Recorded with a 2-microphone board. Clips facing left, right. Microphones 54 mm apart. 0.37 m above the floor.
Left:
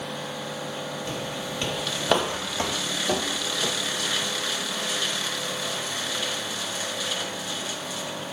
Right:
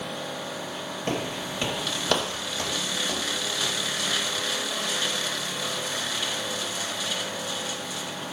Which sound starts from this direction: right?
Footsteps, at 1.1 s.